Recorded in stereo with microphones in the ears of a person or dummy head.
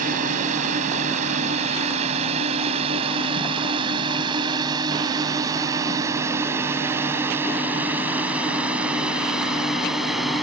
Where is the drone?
45° right (ahead or behind); by 10.4 s centre (ahead or behind).